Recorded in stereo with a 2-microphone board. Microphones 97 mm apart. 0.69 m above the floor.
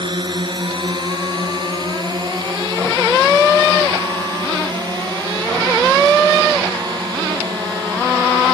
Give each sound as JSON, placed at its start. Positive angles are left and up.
{"t": 0.0, "sound": "a drone", "side_deg": -50}